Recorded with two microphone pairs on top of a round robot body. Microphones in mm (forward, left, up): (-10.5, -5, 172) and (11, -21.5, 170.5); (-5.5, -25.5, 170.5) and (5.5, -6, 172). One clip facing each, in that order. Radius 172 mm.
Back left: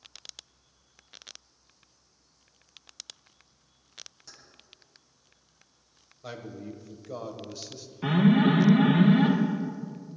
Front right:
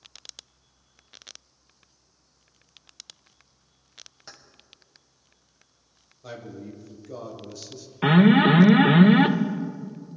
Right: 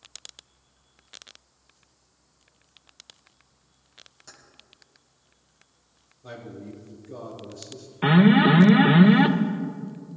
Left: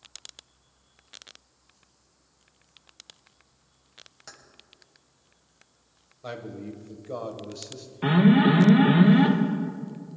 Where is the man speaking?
80° left, 2.0 m.